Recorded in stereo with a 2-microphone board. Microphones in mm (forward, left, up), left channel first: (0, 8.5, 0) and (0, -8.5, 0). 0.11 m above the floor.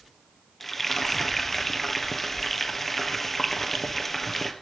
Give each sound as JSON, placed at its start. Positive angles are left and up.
{"t": 0.6, "sound": "frying", "side_deg": 15, "distance_m": 1.5}